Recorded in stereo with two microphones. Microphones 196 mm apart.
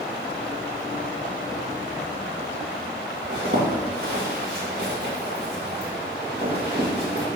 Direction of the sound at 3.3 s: 55° right (ahead or behind).